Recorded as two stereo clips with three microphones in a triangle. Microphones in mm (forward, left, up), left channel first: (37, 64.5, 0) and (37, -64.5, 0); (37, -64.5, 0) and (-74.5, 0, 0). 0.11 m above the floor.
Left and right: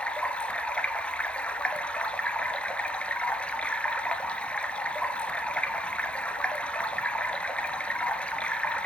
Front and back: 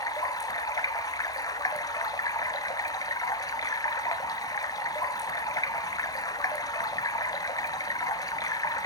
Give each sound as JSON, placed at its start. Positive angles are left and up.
{"t": 0.0, "sound": "running water", "azimuth_deg": 15, "distance_m": 0.8}